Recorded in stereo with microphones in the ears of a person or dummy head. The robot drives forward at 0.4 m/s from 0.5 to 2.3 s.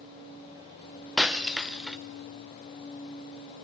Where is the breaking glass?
Centre (ahead or behind), 0.7 m.